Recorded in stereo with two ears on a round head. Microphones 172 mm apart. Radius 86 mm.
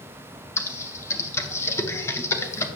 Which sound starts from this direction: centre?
Typing on a keyboard, at 0.6 s.